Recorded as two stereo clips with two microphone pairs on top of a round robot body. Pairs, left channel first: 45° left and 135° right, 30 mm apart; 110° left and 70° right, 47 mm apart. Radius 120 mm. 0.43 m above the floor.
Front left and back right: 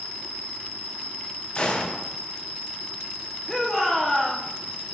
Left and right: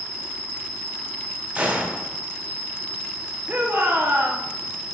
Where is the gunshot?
5° right, 1.9 m.